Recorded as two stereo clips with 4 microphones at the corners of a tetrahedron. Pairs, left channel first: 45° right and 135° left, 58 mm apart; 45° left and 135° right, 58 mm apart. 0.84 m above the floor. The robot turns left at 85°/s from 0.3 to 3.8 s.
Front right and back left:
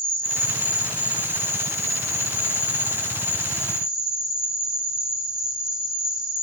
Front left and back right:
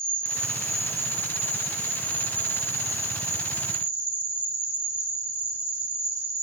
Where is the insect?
Straight ahead, 1.2 m; by 6.4 s 60° left, 1.2 m.